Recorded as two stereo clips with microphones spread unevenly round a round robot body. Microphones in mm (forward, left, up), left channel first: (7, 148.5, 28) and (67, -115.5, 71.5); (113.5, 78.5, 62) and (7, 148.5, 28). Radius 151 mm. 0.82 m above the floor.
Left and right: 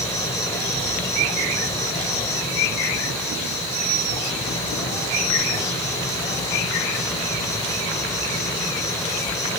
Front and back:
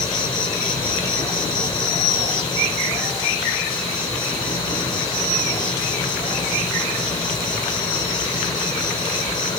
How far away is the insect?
About 3 m.